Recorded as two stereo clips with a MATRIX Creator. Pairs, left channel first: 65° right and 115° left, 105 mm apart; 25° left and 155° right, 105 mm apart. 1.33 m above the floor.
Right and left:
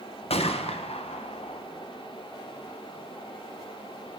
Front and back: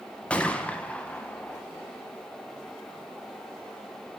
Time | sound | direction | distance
0.3 | a gunshot | 55° right | 0.6 m